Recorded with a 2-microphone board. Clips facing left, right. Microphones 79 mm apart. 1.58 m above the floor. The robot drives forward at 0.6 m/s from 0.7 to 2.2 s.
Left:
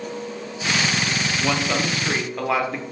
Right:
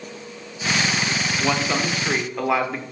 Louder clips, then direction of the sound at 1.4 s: Right 1 dB; 5° right (ahead or behind).